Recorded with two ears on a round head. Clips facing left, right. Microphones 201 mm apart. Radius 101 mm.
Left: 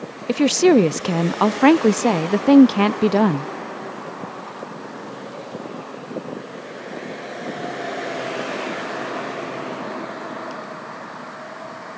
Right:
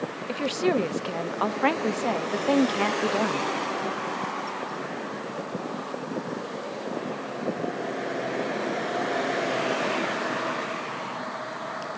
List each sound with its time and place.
0.3 s a woman speaking: 60° left (ahead or behind)